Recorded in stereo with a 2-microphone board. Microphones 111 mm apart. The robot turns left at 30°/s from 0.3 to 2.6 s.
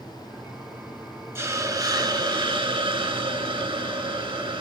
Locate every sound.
1.4 s a hiss: 30° right, 0.5 m; by 4.6 s 65° right, 0.5 m